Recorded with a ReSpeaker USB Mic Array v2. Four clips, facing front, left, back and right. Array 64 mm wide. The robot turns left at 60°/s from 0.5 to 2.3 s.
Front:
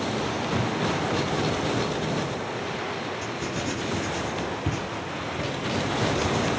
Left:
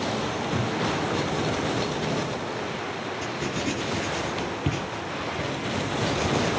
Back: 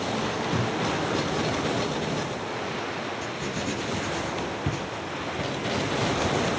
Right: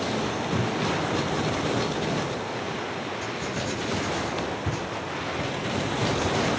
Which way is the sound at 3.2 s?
95° left.